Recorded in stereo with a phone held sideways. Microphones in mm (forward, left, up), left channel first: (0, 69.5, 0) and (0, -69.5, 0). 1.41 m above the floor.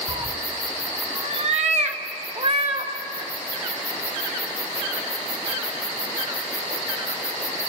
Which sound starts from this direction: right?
A cat meowing, at 0.1 s.